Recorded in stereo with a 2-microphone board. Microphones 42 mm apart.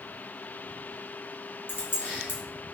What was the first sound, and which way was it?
Keys jangling, 55° left (ahead or behind).